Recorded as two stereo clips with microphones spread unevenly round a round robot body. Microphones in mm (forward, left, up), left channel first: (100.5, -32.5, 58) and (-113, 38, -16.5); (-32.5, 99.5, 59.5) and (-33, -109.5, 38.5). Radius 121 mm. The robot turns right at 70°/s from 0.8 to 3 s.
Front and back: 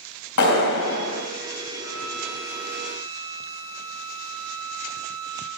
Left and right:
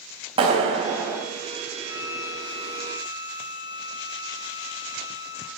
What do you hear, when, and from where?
0.4 s a clap: 25° right, 3.5 m; by 1.2 s 5° left, 3.5 m
1.8 s a violin: 70° left, 4 m; by 5.5 s 155° left, 4 m